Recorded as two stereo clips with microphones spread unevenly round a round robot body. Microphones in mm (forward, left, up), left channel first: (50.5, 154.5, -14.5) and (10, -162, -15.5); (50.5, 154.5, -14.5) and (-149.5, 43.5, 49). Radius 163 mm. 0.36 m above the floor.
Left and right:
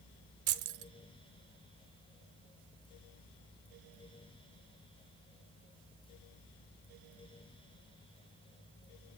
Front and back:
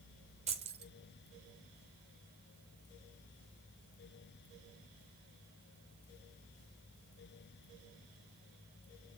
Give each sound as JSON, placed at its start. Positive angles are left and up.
{"t": 0.5, "sound": "keys jangling", "azimuth_deg": -75, "distance_m": 1.1}